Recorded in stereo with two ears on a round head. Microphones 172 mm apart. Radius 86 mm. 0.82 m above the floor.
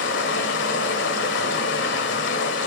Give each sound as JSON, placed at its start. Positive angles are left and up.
{"t": 0.0, "sound": "running water", "side_deg": 60, "distance_m": 1.9}